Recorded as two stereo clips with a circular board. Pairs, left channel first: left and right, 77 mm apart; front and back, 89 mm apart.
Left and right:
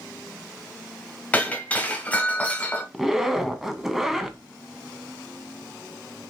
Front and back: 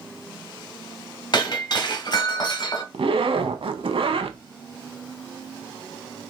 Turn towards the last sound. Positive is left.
turn(degrees=-175)